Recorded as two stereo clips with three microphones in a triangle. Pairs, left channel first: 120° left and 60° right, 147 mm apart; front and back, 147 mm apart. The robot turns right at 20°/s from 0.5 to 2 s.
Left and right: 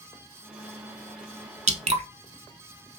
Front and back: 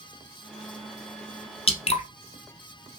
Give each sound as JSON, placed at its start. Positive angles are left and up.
{"t": 1.7, "sound": "dripping", "azimuth_deg": -40, "distance_m": 0.6}